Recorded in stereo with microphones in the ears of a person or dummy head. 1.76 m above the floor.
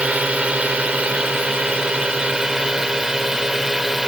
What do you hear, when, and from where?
0.0 s a drone: 5° right (ahead or behind); by 4.1 s centre (ahead or behind)